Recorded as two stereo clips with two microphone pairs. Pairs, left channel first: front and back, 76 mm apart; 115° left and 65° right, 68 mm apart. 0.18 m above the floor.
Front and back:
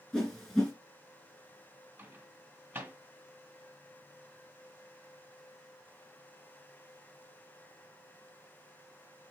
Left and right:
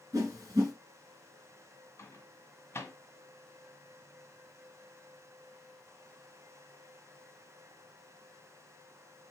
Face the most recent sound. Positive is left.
turn(degrees=140)